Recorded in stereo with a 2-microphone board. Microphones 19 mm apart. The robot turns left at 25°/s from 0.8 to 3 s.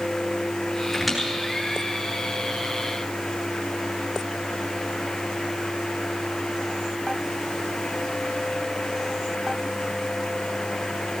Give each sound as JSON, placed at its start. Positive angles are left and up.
{"t": 0.9, "sound": "a squeak", "side_deg": 0, "distance_m": 9.0}